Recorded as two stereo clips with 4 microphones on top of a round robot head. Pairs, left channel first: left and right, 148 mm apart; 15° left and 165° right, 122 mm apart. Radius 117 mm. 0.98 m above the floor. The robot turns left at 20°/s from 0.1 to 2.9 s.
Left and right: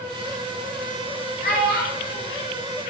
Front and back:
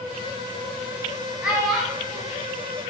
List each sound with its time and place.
1.4 s a child speaking: 110° left, 1.2 m; by 2.2 s 95° left, 1.2 m